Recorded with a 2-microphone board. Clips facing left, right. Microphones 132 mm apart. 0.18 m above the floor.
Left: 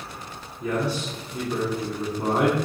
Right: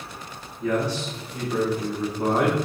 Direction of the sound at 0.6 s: 5° left (ahead or behind).